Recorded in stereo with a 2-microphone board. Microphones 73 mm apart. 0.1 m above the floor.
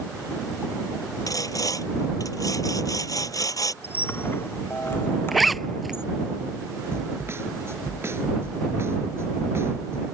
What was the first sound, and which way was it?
Sawing, 55° left (ahead or behind).